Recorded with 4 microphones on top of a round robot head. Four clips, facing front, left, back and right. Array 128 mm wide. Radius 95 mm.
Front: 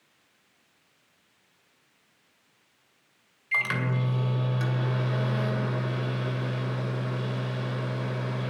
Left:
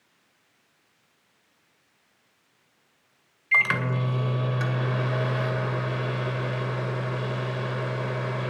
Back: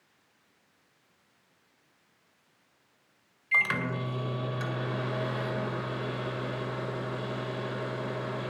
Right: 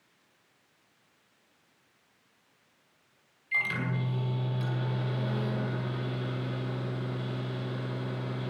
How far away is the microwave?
About 2 m.